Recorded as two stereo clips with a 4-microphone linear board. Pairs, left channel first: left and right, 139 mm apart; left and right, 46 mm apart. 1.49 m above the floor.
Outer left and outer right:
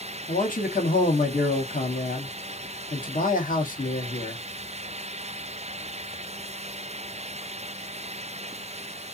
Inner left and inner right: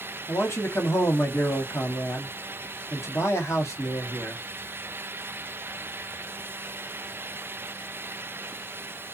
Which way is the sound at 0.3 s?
75° left (ahead or behind).